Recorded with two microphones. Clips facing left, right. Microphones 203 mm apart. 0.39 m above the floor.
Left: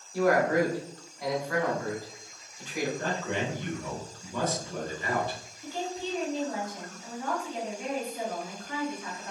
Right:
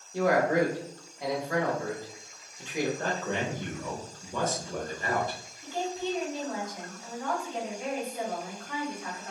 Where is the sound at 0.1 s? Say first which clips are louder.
Even; 20° right (ahead or behind), 1.1 m.